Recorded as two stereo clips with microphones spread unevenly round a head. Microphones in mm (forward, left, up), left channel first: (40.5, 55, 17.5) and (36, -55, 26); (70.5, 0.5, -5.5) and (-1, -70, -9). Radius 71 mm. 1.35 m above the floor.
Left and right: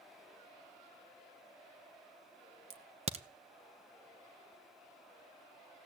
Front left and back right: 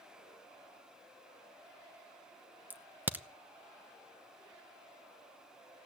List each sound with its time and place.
2.7 s a crack: 65° right, 1.0 m